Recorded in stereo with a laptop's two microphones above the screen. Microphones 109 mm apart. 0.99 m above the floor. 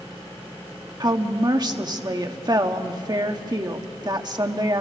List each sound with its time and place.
1.0 s a woman speaking: 40° right (ahead or behind), 1.5 m